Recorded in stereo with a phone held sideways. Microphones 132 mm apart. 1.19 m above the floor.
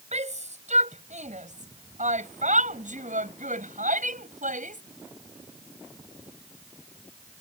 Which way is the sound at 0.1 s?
60° right (ahead or behind).